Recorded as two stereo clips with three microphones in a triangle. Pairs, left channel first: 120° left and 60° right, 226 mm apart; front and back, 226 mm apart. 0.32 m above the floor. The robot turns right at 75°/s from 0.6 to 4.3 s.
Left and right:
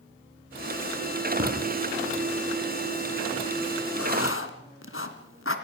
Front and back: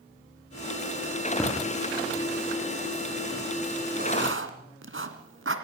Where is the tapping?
80° right, 7 m; by 1.5 s 70° right, 7 m.